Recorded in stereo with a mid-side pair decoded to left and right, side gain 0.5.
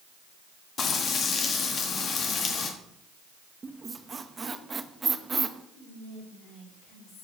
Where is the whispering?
70° left, 3.5 m.